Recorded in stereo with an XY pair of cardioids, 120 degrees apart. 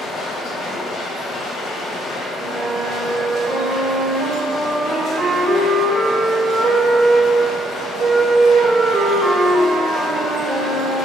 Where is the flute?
35° right, 2 m.